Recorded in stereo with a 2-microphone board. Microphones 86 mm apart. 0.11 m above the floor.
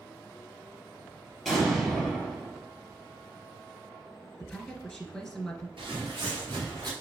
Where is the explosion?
Centre (ahead or behind), 2.5 m.